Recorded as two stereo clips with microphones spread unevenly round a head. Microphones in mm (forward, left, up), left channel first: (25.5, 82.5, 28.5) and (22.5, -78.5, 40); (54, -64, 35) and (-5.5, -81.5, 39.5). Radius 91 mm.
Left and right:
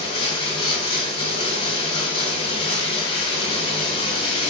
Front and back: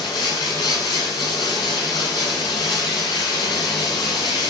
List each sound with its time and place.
0.0 s running water: 40° left, 1.8 m